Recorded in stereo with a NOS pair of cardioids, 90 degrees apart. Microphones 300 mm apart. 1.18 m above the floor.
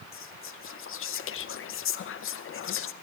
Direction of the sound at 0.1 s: 45° left.